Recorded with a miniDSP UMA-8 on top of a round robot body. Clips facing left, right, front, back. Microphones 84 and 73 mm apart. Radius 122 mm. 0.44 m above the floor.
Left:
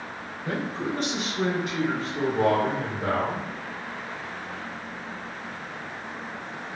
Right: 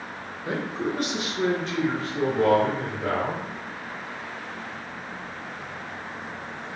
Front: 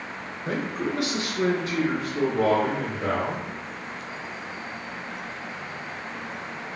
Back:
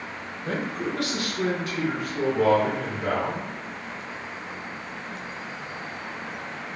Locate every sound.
0.5 s a man speaking: 70° right, 1.1 m; by 3.5 s 30° left, 2.0 m